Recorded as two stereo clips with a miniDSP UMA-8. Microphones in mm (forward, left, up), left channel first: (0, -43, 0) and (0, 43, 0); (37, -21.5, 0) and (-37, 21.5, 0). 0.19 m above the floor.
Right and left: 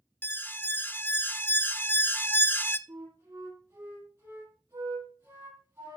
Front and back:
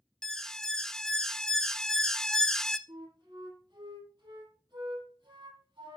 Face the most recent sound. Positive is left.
turn(degrees=145)